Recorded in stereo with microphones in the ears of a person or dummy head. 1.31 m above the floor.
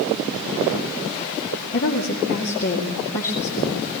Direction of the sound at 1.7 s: 45° left (ahead or behind).